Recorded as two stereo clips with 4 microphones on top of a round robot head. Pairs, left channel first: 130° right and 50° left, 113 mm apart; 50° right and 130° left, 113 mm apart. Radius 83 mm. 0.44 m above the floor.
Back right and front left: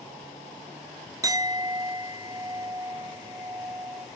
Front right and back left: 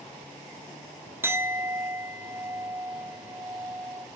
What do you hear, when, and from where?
1.2 s a clink: 75° left, 0.8 m